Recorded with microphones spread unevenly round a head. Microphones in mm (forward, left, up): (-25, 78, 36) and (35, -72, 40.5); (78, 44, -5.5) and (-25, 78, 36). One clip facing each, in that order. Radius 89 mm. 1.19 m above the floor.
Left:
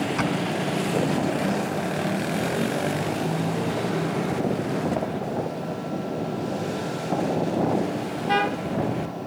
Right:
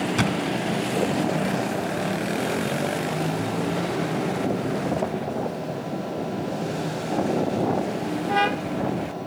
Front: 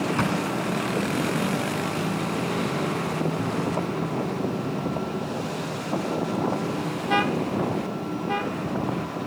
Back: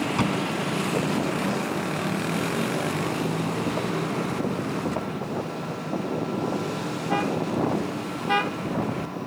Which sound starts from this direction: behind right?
A thud, at 0.2 s.